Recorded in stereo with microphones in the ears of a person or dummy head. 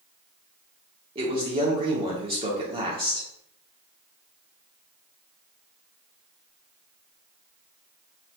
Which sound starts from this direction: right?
A man speaking, at 1.1 s.